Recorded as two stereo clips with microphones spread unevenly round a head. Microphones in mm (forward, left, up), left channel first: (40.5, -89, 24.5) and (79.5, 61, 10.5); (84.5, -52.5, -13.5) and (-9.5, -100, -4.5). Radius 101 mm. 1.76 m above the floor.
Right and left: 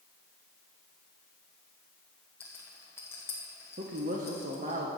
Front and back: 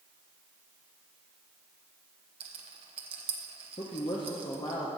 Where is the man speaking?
65° left, 0.9 m.